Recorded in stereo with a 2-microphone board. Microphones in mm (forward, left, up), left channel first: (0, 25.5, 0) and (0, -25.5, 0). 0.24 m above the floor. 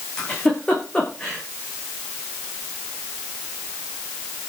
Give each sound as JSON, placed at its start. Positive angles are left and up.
{"t": 0.2, "sound": "a giggle", "side_deg": 15, "distance_m": 7.5}